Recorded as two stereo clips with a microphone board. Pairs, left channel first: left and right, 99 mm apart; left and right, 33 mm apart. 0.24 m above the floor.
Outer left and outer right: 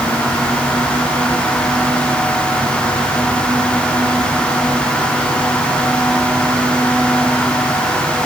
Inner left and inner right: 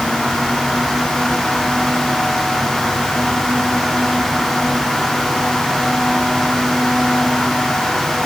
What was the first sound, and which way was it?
Only background noise.